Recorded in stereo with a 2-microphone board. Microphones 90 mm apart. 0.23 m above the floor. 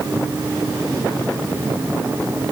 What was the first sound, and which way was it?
Only background noise.